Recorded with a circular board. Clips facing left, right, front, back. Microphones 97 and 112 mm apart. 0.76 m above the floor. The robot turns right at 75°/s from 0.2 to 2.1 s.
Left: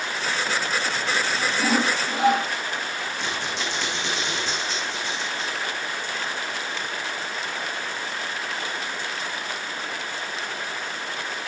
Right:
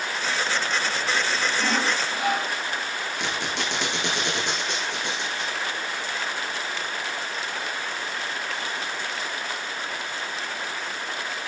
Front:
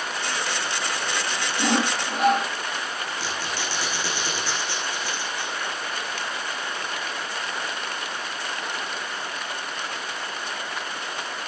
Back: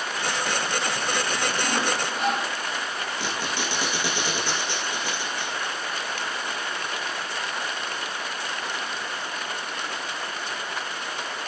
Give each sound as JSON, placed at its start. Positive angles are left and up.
{"t": 1.6, "sound": "sawing", "azimuth_deg": -5, "distance_m": 5.5}
{"t": 3.2, "sound": "a squeak", "azimuth_deg": -105, "distance_m": 5.5}